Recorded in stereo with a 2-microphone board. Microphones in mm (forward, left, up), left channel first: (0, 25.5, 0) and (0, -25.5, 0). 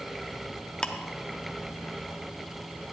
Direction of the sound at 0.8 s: 15° left (ahead or behind).